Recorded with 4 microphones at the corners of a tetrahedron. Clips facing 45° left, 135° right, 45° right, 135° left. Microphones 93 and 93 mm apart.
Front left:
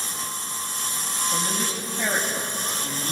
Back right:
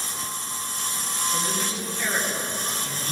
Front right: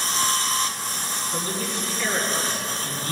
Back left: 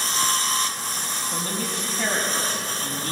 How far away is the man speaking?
About 5.5 m.